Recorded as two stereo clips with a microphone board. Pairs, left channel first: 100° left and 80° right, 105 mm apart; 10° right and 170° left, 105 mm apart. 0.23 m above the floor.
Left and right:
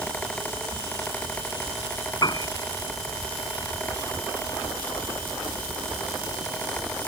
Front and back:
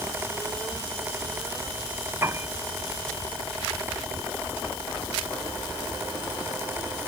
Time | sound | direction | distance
2.2 | a piano | 115° left | ?